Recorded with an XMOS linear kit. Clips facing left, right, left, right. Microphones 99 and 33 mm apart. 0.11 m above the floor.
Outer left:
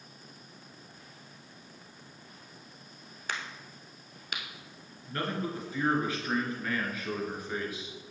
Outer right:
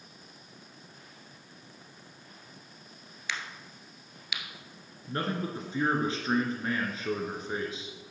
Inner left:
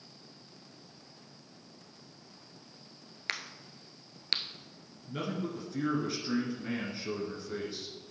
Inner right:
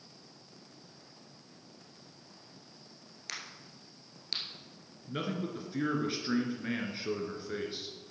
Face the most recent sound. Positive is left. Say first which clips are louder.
# outer right 1 dB, even
turn(degrees=-25)  # may be behind; listen again after turning